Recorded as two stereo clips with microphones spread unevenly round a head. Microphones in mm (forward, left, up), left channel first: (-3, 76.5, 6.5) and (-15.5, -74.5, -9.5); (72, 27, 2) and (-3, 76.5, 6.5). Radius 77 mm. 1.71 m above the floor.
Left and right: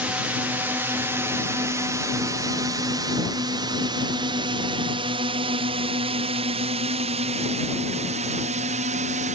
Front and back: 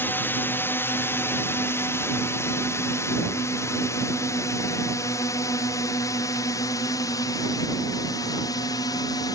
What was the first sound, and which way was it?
A drone, 35° right.